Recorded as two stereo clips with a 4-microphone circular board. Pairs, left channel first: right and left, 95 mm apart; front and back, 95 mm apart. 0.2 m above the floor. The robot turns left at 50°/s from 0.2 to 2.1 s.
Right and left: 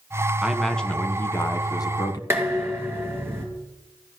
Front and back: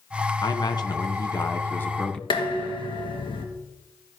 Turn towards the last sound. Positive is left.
turn(degrees=25)